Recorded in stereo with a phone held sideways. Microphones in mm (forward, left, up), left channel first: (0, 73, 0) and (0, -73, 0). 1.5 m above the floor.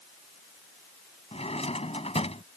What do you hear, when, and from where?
1.3 s a drawer: 45° left (ahead or behind)